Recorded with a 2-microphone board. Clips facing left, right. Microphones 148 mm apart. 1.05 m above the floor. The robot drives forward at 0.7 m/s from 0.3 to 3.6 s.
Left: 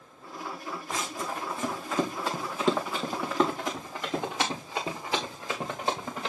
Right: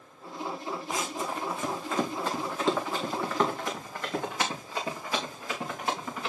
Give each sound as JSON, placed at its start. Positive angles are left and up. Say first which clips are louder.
{"t": 0.9, "sound": "running footsteps", "louder": "even", "side_deg": -5, "distance_m": 3.0}